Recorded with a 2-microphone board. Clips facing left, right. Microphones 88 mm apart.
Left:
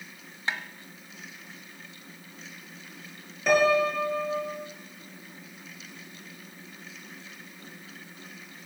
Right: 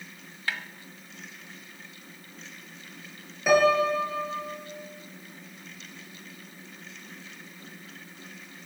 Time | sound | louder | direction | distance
0.5 | a snare drum | left 1 dB | 25° left (ahead or behind) | 1.1 m
3.5 | a piano | right 1 dB | 5° right (ahead or behind) | 4 m